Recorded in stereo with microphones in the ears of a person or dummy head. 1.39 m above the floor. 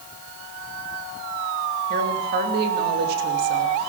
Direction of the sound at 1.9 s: 65° right (ahead or behind).